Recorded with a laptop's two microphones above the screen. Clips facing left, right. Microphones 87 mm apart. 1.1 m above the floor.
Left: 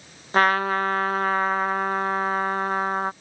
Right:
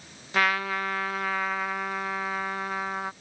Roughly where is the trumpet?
Left.